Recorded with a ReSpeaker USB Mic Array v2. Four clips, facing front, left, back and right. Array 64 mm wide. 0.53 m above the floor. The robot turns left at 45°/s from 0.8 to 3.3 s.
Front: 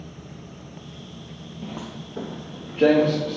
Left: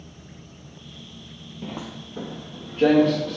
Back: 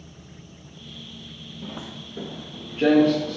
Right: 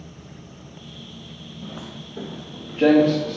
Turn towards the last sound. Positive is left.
turn(degrees=-40)